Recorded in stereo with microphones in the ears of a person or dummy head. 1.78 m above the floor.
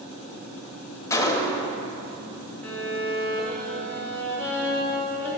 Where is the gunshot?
15° left (ahead or behind), 0.7 m.